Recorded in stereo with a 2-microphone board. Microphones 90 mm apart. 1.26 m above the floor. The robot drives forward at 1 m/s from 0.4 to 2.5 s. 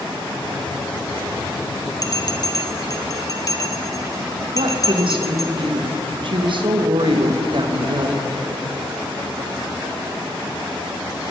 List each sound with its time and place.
2.0 s a bell: 40° left (ahead or behind), 0.7 m
4.5 s a woman speaking: 60° right (ahead or behind), 1.1 m